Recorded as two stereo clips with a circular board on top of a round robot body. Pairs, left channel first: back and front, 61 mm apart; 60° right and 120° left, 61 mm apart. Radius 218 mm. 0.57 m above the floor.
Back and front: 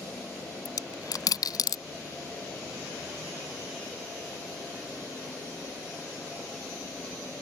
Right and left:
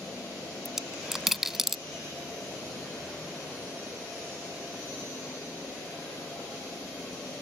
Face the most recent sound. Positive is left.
turn(degrees=-155)